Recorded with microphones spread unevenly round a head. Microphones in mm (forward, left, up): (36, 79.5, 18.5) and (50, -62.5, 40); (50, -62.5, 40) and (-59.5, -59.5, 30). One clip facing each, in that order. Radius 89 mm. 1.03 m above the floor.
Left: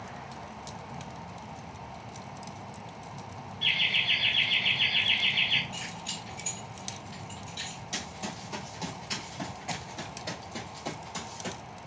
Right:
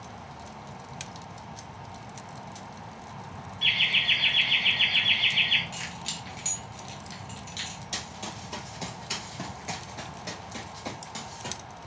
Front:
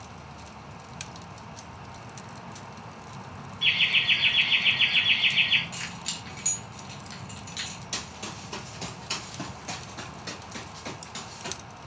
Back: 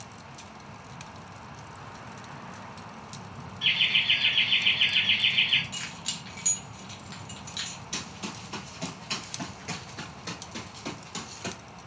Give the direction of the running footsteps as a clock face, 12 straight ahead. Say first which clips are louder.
Left 2 dB, back 2 dB; 1 o'clock.